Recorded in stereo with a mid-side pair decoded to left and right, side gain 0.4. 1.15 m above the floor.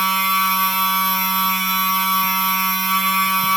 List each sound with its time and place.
0.0 s a machine running: 25° right, 2.5 m